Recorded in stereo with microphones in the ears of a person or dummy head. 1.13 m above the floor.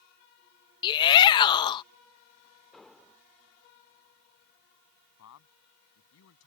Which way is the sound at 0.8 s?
25° left (ahead or behind).